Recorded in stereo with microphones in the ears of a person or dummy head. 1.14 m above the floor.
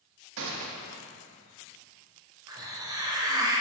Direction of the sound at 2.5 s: 20° right (ahead or behind).